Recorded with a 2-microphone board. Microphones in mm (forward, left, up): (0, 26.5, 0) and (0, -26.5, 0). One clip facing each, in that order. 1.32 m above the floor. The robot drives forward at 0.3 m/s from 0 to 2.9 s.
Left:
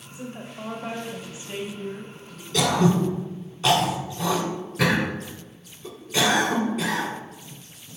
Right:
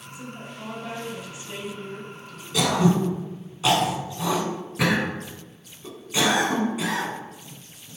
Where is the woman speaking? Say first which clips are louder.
Left 2 dB; 40° left (ahead or behind), 1.4 m; by 2.4 s 25° left (ahead or behind), 2 m.